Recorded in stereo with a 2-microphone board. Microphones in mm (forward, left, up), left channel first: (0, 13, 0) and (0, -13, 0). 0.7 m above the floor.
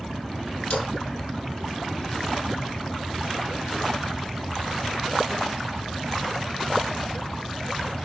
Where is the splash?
55° left (ahead or behind), 5 m.